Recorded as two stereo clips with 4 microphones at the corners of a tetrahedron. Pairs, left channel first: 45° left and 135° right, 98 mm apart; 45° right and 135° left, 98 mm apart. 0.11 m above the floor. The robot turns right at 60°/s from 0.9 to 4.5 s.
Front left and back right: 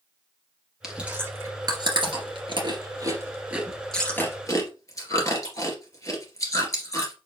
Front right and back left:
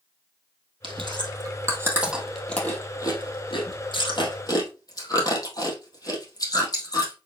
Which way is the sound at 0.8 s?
140° left.